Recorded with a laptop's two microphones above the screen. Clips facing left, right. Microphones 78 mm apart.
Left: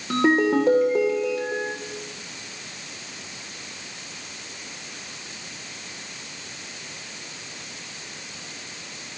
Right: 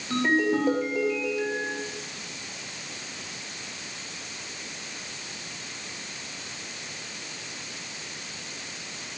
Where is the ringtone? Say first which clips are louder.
Left 4 dB; 80° left, 2.5 m.